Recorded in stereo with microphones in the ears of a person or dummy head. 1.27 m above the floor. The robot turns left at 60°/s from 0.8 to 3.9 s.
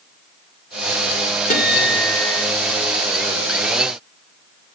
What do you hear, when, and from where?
1.5 s a guitar: 135° left, 1.1 m; by 2.5 s 80° left, 1.1 m